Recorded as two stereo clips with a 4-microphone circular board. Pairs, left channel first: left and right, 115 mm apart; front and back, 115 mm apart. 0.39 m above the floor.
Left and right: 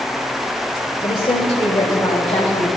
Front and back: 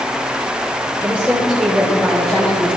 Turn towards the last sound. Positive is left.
turn(degrees=80)